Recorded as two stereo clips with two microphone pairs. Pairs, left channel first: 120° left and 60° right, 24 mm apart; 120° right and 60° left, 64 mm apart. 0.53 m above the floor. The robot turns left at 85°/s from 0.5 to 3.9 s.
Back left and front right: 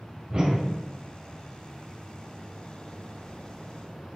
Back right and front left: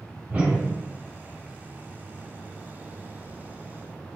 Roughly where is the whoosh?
Ahead.